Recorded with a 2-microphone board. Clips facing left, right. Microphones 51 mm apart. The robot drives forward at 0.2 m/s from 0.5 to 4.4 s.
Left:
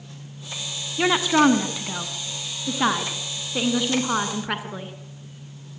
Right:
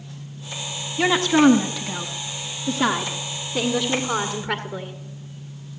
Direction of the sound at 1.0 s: 10° left (ahead or behind).